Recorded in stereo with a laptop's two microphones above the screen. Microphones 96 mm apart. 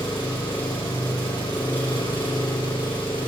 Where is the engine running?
55° left (ahead or behind), 4 m.